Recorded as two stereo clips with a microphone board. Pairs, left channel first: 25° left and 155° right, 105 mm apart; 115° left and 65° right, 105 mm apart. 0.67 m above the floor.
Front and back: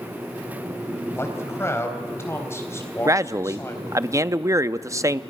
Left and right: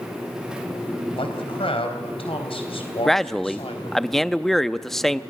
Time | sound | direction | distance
1.1 | a man speaking | 85° left | 3.5 m
3.0 | a man speaking | 165° right | 0.6 m